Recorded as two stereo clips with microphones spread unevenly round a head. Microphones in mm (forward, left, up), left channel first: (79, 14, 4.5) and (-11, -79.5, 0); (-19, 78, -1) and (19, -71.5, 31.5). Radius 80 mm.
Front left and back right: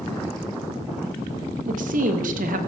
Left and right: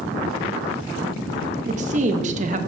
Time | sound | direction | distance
1.6 | a woman speaking | 120° right | 1.3 m